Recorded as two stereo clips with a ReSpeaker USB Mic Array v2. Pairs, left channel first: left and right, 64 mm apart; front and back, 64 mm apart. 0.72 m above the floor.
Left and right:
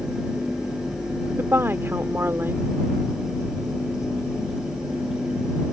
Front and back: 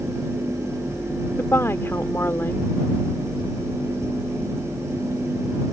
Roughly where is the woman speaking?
Ahead right.